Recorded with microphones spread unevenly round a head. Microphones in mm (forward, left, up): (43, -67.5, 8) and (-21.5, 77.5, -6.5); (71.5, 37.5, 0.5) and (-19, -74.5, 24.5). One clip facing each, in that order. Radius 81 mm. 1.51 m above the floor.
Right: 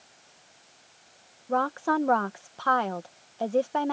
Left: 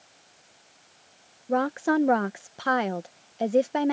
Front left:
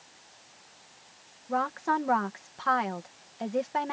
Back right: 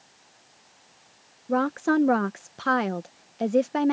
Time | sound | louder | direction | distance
1.5 | a woman speaking | left 3 dB, back right 6 dB | 175° right | ?